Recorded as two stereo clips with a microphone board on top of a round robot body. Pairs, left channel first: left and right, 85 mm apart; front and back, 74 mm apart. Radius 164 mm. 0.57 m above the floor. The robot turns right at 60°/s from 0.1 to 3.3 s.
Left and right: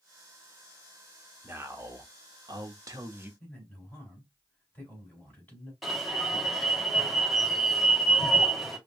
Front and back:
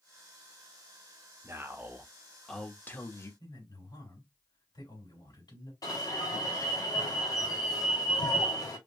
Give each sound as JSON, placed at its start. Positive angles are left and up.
{"t": 1.4, "sound": "a man speaking", "azimuth_deg": -145, "distance_m": 1.6}
{"t": 3.4, "sound": "a man speaking", "azimuth_deg": 20, "distance_m": 4.0}
{"t": 5.8, "sound": "an alarm", "azimuth_deg": 0, "distance_m": 2.5}